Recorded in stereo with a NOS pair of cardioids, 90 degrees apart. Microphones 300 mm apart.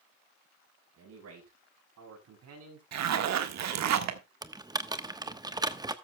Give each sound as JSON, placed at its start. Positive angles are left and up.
{"t": 1.0, "sound": "a man speaking", "azimuth_deg": -60, "distance_m": 6.5}
{"t": 2.9, "sound": "a zipper", "azimuth_deg": -65, "distance_m": 1.5}
{"t": 4.4, "sound": "typing on a keyboard", "azimuth_deg": -15, "distance_m": 1.1}